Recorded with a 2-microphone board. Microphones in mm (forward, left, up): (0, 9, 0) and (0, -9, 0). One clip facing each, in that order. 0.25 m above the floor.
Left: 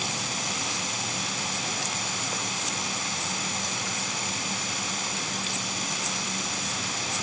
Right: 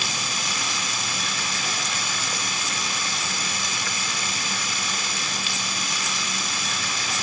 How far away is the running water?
About 1.1 m.